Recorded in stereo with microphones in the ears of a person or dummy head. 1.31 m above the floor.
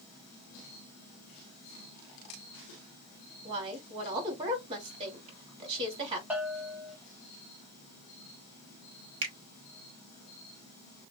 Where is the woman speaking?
30° right (ahead or behind), 2.5 m.